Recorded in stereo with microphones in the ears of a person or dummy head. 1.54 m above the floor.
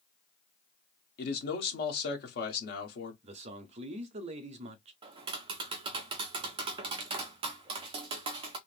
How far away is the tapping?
About 0.5 m.